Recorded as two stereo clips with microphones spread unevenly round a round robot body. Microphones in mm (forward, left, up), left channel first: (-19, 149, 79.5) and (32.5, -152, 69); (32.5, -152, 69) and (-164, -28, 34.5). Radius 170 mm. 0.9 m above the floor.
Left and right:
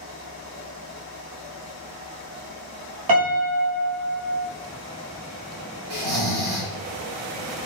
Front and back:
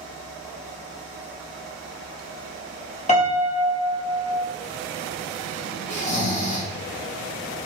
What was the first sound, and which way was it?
A piano, 95° right.